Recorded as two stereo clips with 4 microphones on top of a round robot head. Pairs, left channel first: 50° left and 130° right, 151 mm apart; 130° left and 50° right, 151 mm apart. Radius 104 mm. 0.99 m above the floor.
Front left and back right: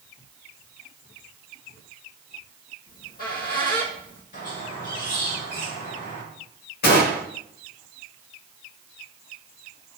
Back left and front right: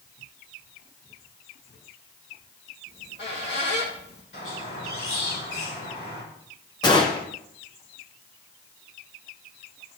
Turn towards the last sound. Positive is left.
turn(degrees=65)